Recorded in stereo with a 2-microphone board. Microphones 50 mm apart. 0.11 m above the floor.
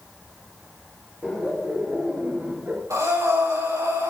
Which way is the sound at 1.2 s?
25° right (ahead or behind).